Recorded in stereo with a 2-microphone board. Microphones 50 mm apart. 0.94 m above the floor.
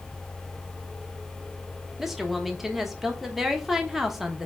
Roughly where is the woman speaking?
Centre.